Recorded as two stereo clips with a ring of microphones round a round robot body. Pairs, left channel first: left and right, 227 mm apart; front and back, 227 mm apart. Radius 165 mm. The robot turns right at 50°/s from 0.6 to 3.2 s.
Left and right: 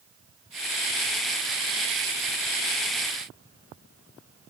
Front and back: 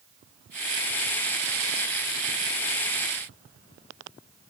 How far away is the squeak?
No squeak in this recording.